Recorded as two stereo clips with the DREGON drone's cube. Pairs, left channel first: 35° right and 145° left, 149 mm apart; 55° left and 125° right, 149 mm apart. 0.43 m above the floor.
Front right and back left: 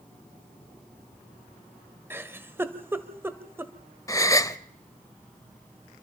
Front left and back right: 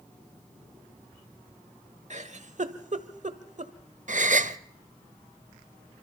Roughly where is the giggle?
Behind right.